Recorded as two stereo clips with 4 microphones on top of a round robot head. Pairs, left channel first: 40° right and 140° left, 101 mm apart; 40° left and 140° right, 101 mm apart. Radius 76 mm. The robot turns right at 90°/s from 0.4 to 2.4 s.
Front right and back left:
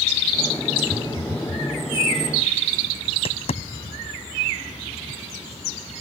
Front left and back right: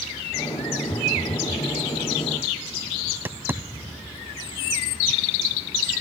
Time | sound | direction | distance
0.9 | a phone buzzing | 110° left | ?
3.1 | tapping | 70° right | ?